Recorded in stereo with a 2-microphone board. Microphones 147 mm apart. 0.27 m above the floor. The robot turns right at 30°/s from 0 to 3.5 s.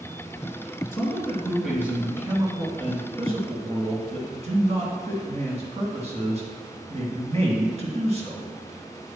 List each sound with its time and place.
0.9 s a man speaking: 160° left, 2.5 m; by 8.5 s 120° right, 2.5 m